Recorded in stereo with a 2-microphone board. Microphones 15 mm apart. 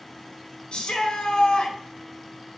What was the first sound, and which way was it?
A shout, 65° left (ahead or behind).